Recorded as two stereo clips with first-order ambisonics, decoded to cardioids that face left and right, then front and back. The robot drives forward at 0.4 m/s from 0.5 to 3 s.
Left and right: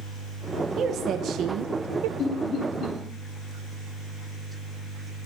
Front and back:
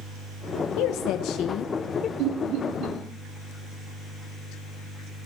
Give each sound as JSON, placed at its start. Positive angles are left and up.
{"t": 0.8, "sound": "a woman speaking", "azimuth_deg": -30, "distance_m": 0.9}
{"t": 2.2, "sound": "laughter", "azimuth_deg": 145, "distance_m": 3.0}